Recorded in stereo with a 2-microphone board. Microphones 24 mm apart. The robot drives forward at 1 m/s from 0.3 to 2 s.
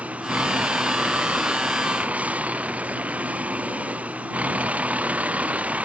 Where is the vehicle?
70° right (ahead or behind).